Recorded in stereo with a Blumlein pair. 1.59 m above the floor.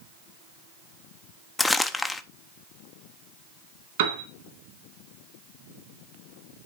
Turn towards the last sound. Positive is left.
turn(degrees=-55)